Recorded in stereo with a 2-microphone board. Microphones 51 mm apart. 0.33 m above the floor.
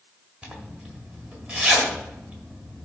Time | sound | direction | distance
0.4 | a zipper | 20° right (ahead or behind) | 1.5 m